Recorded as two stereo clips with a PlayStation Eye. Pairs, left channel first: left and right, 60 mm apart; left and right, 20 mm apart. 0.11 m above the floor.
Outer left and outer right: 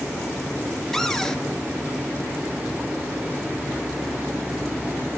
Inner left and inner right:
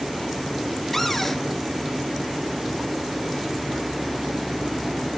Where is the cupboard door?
10° left (ahead or behind), 1.4 m.